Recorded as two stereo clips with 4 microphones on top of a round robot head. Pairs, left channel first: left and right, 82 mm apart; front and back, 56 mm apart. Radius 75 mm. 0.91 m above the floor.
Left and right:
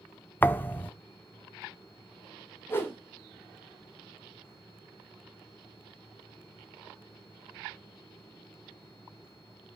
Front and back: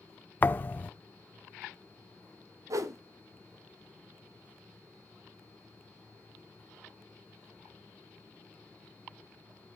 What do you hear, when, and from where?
0.4 s a thud: 35° left, 0.5 m
2.7 s a whoosh: 155° left, 1.4 m